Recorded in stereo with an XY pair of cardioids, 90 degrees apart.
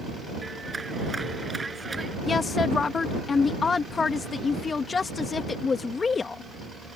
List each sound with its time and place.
0.4 s a clap: 25° right
2.3 s a woman speaking: 45° left